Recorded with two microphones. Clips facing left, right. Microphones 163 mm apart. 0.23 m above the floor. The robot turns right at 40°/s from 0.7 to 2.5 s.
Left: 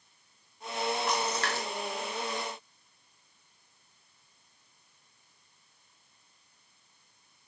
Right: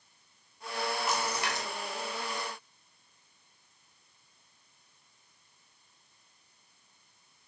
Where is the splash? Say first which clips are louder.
Left 2 dB; 5° right (ahead or behind), 0.6 m; by 1.7 s 20° right (ahead or behind), 0.6 m.